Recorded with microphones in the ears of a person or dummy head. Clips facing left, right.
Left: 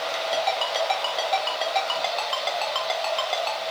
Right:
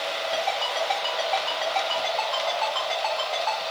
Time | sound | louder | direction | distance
0.3 | a ringtone | left 3 dB | 45° left (ahead or behind) | 1.2 m